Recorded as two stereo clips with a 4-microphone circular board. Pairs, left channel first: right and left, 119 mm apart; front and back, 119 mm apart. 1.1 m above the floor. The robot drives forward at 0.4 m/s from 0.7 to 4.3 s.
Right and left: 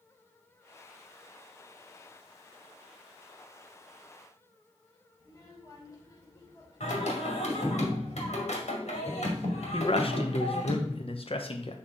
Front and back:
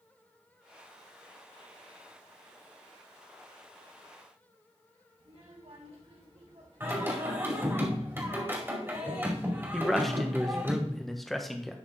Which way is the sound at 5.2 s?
145° right.